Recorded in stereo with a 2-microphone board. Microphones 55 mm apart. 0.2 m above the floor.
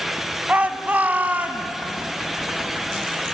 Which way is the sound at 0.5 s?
30° right (ahead or behind).